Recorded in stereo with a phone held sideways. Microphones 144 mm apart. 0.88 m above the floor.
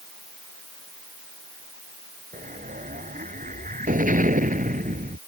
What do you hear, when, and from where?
2.3 s an explosion: 65° right (ahead or behind)